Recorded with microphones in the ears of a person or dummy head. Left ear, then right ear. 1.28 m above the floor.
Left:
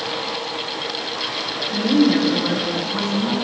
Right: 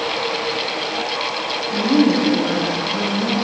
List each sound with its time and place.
1.7 s a woman speaking: 20° left (ahead or behind), 5 m